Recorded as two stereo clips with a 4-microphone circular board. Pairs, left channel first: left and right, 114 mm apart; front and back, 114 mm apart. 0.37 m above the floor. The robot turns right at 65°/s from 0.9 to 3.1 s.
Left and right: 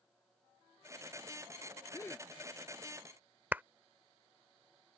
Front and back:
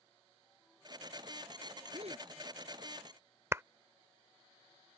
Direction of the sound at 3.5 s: 145° right.